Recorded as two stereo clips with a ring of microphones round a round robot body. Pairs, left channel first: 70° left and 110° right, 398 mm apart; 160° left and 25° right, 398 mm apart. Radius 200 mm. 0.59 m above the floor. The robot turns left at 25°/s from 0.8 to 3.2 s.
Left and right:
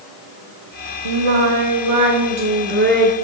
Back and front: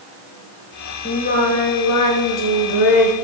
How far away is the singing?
About 1.6 m.